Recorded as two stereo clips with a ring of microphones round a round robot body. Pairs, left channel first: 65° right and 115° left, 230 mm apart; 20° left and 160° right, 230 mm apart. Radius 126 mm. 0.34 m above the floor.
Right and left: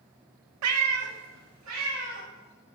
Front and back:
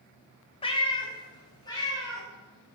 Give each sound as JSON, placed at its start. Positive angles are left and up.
{"t": 0.6, "sound": "a cat meowing", "azimuth_deg": 90, "distance_m": 0.5}